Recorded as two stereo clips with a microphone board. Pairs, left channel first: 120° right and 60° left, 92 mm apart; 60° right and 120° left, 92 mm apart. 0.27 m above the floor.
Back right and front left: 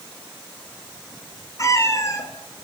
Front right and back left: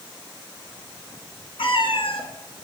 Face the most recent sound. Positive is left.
turn(degrees=-65)